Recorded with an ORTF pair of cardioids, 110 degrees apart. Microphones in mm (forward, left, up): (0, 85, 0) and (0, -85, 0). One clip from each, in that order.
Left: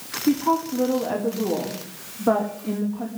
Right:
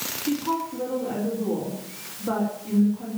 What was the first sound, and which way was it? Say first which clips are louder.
A woman speaking: left 6 dB; 70° left.